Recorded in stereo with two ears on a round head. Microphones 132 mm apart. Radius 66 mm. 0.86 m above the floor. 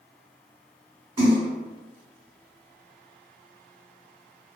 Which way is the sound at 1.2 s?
35° right (ahead or behind).